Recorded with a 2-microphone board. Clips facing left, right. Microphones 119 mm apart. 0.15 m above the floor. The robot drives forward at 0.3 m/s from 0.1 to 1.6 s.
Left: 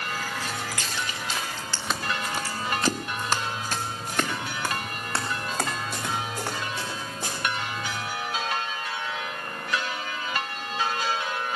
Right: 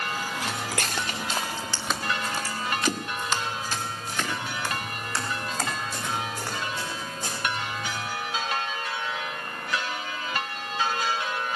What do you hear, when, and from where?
0.4 s footsteps: 70° right (ahead or behind), 2 m; by 8.1 s 70° left (ahead or behind), 9 m